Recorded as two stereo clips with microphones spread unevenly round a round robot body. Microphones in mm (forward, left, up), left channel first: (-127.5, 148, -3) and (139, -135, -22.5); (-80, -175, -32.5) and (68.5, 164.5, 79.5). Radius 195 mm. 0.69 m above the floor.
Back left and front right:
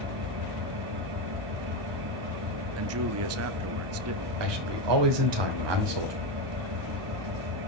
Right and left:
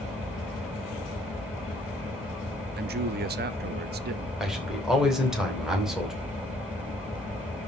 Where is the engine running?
20° right, 7 m.